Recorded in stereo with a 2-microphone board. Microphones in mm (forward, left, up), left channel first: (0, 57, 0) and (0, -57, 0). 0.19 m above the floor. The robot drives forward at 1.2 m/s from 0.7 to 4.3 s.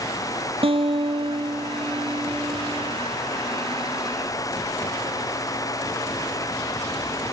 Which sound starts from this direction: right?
A guitar, at 0.6 s.